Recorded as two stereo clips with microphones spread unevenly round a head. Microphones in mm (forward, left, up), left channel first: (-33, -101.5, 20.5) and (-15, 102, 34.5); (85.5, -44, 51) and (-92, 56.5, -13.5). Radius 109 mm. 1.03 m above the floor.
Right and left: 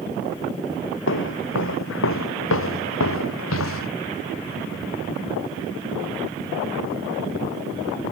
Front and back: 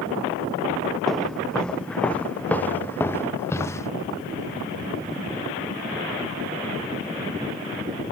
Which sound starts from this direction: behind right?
Footsteps, at 1.1 s.